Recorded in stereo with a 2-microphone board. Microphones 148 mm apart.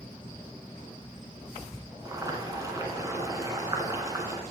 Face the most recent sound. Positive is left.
turn(degrees=-25)  # may be behind; listen again after turning